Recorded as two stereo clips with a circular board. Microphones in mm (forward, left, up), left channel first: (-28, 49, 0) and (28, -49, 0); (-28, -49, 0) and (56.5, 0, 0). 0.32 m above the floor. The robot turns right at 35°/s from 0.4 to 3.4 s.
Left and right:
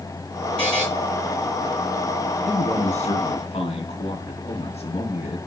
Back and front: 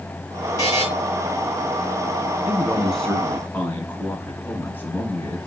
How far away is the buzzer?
About 5.5 m.